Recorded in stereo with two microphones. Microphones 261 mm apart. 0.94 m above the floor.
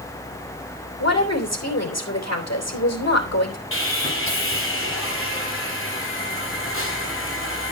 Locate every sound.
1.0 s a woman speaking: 75° left (ahead or behind), 3 m
3.7 s sawing: 50° left (ahead or behind), 2.5 m